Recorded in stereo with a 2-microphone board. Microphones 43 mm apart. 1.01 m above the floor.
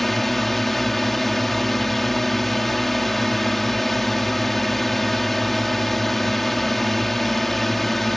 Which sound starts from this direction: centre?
A drone, at 0.0 s.